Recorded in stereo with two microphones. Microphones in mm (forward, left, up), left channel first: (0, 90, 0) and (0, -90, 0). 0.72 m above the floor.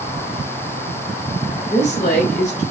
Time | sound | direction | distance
1.7 | a woman speaking | 45° left (ahead or behind) | 3.5 m